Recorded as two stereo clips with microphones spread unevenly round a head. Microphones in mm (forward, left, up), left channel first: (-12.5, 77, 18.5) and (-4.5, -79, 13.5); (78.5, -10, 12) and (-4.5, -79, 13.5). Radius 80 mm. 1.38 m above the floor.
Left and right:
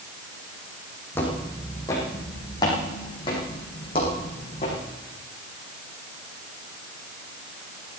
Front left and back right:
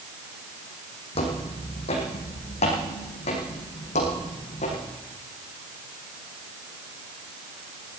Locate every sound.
1.1 s footsteps: 20° left, 4.5 m; by 4.8 s 45° left, 5.5 m